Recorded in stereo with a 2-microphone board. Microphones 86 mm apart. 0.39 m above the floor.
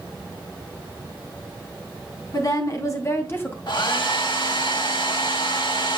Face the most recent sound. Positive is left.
turn(degrees=65)  # may be behind; listen again after turning